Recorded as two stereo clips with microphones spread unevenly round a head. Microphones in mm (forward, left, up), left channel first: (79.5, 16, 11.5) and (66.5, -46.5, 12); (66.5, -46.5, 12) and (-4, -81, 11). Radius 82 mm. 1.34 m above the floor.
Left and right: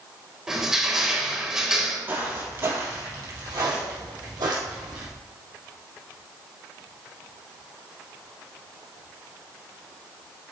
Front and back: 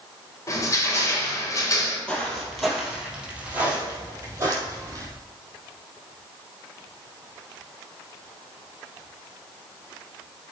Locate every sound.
0.5 s crushing: 20° right, 1.9 m
2.1 s footsteps: 50° right, 2 m; by 5.0 s 110° right, 3 m